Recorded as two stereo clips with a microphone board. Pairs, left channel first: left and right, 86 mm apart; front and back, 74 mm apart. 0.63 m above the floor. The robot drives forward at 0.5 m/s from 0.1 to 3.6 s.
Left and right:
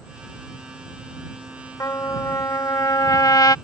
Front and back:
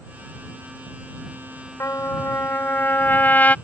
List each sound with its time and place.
1.8 s a trumpet: 45° left; by 3.5 s 65° left